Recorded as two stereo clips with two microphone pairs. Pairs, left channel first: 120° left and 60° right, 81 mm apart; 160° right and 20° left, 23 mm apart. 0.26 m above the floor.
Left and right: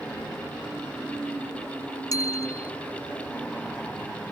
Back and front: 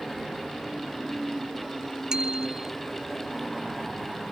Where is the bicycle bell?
75° left.